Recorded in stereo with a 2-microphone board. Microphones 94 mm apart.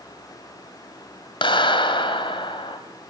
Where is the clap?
65° left (ahead or behind), 2 m.